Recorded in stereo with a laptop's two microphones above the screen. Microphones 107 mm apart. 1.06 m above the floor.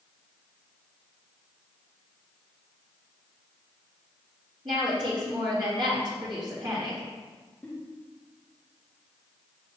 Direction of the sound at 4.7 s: 45° right (ahead or behind).